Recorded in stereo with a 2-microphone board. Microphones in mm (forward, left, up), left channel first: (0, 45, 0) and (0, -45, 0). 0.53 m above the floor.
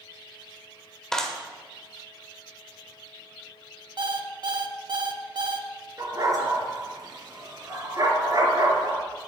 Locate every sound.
1.1 s a clap: 5° left (ahead or behind), 1.8 m
4.0 s an alarm clock: 55° right (ahead or behind), 0.8 m
6.0 s a dog barking: 40° right (ahead or behind), 3 m